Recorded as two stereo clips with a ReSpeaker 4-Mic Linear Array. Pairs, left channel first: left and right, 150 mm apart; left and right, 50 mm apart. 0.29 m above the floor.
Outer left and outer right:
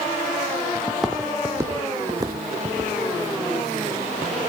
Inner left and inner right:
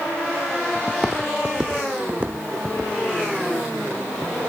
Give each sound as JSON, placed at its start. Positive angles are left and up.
{"t": 0.9, "sound": "footsteps", "side_deg": 5, "distance_m": 0.6}